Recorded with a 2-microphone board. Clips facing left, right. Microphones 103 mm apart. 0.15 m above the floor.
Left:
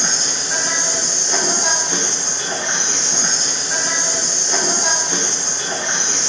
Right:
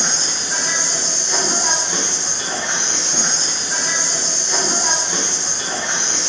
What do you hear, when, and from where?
0.0 s an insect: 20° left (ahead or behind), 1.2 m